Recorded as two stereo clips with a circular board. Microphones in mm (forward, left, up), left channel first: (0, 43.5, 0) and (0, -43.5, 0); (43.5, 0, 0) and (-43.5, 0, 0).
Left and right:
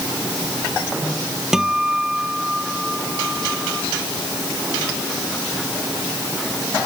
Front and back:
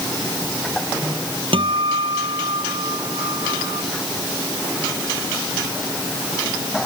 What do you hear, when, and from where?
1.5 s a guitar: 175° right